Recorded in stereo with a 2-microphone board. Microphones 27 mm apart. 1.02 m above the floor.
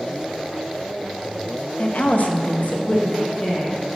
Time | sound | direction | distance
1.8 | a woman speaking | 55° left (ahead or behind) | 0.9 m